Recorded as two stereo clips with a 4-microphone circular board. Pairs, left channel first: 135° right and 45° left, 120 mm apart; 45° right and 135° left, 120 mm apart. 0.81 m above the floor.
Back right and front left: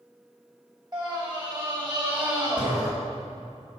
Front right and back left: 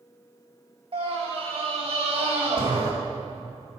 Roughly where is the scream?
Left.